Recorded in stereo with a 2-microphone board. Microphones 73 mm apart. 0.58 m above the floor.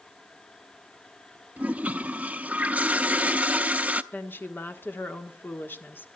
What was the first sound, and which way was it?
A toilet flushing, 20° right (ahead or behind).